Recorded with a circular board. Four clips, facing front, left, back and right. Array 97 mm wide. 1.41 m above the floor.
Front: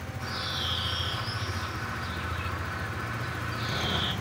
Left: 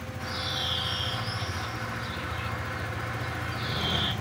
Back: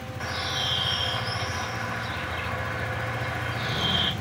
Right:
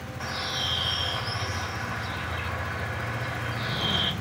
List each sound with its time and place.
0.2 s a bird: 155° right, 3.5 m